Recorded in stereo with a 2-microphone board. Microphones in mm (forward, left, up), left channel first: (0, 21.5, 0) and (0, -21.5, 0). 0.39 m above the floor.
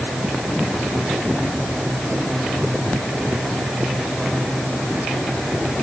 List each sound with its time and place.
Only background noise.